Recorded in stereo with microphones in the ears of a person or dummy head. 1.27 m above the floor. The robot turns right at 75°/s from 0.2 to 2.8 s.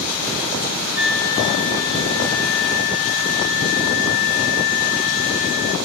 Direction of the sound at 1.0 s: 10° right.